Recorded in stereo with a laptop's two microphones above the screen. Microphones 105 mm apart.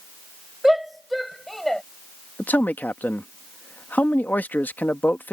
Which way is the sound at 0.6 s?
5° right (ahead or behind).